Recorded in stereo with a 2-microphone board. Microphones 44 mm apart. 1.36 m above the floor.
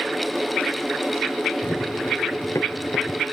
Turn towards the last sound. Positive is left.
turn(degrees=80)